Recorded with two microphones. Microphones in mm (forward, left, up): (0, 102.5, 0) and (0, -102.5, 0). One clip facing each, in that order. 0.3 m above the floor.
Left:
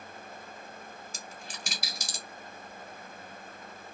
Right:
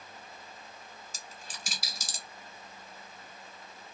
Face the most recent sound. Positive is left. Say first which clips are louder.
# left 4 dB
turn(degrees=60)  # may be behind; listen again after turning